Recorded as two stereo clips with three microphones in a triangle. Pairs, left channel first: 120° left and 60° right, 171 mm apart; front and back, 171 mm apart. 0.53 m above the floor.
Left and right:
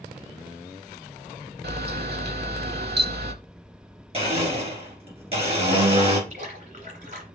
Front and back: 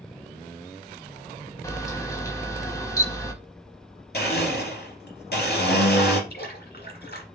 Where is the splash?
15° right, 1.9 m.